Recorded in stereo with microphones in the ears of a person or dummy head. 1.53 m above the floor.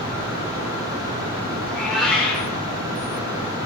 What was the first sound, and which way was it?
A cat meowing, centre (ahead or behind).